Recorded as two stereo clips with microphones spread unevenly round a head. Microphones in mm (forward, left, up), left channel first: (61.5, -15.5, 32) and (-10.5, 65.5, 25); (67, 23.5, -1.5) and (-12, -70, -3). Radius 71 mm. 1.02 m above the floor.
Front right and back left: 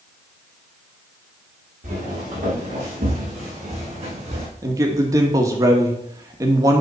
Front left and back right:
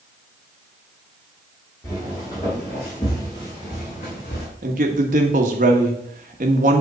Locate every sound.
1.8 s footsteps: 120° left, 5 m; by 4.5 s 100° left, 3 m
4.6 s a man speaking: 165° right, 1.4 m